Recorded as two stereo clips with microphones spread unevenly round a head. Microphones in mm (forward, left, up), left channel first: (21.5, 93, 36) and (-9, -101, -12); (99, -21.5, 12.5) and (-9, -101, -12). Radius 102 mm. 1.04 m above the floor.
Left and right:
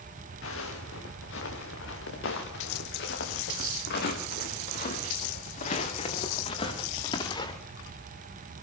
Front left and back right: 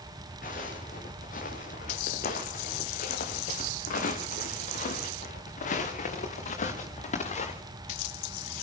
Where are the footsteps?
75° left, 6 m; by 7.5 s 15° left, 5.5 m.